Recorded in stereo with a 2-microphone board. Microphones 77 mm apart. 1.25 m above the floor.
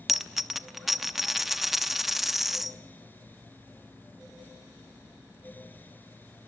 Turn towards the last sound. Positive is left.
turn(degrees=-5)  # may be behind; listen again after turning